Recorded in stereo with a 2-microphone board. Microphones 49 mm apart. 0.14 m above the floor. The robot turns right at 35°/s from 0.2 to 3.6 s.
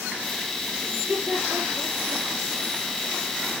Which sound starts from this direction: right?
Laughter, at 0.9 s.